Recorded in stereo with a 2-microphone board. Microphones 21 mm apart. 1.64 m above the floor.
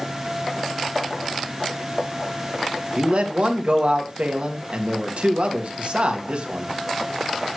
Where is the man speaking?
70° right (ahead or behind), 1.6 m.